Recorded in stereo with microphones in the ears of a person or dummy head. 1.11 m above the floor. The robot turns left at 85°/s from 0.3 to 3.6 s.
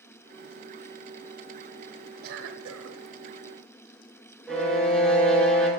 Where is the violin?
10° left (ahead or behind), 1.5 m.